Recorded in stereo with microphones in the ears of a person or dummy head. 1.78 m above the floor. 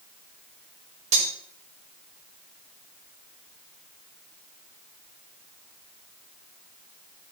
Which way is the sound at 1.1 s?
40° right (ahead or behind).